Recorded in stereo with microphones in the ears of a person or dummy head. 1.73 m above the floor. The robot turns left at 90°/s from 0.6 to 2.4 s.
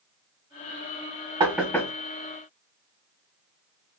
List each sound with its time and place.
1.4 s knocking: 15° right (ahead or behind), 1.3 m; by 1.9 s 25° left (ahead or behind), 1.3 m